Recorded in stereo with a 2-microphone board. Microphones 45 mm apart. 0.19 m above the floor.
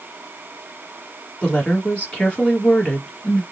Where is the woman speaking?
25° left (ahead or behind), 2.5 m.